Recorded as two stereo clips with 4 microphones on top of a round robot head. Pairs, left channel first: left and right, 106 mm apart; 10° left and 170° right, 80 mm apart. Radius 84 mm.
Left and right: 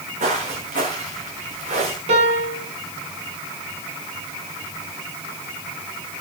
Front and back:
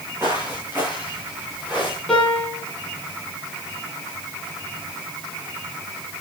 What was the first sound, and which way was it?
Footsteps, 100° right.